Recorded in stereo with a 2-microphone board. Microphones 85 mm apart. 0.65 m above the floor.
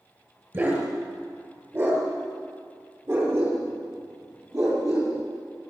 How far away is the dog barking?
About 5.5 m.